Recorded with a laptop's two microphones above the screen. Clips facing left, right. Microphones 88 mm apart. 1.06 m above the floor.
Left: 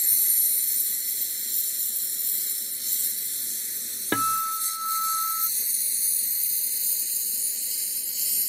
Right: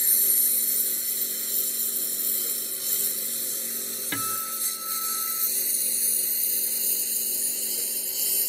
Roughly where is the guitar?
Left.